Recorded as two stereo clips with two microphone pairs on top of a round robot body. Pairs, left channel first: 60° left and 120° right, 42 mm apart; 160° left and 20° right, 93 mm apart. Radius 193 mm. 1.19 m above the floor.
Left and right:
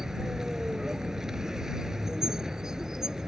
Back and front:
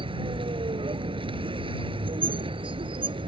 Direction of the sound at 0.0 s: 45° right.